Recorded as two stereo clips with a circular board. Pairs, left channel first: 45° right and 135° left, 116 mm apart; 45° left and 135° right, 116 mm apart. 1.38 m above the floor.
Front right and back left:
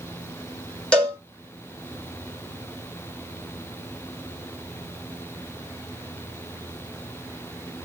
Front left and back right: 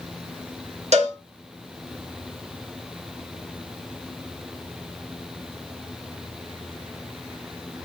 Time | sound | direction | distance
0.9 | a cowbell | 125° right | 1.6 m